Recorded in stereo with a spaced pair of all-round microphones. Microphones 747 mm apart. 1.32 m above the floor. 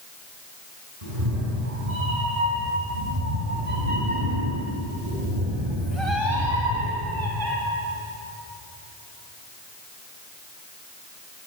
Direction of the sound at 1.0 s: 55° right (ahead or behind).